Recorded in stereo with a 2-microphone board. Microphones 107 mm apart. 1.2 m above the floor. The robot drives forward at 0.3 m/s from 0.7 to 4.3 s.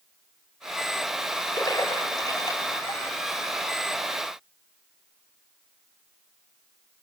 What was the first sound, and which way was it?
A splash, 35° left (ahead or behind).